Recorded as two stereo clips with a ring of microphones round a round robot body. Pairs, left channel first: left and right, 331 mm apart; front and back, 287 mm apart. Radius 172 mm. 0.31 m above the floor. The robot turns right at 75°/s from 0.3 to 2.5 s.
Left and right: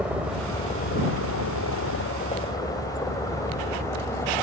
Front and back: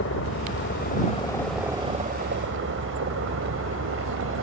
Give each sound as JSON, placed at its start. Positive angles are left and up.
{"t": 0.0, "sound": "a helicopter", "azimuth_deg": -5}